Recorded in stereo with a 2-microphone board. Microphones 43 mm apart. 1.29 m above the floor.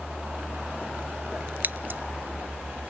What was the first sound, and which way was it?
Scissors, 50° right (ahead or behind).